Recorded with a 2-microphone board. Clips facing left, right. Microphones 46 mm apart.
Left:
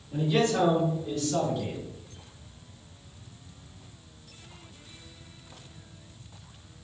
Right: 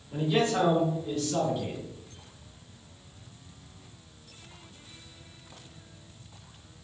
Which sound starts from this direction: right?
A man speaking, at 0.1 s.